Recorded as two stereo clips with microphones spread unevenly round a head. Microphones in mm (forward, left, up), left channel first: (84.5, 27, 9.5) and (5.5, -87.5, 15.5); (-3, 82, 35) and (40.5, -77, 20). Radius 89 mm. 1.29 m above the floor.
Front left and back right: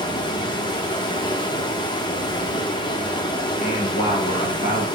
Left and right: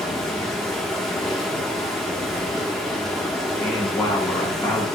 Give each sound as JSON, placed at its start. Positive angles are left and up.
{"t": 0.0, "sound": "running water", "azimuth_deg": 25, "distance_m": 0.9}
{"t": 3.6, "sound": "a man speaking", "azimuth_deg": 30, "distance_m": 2.5}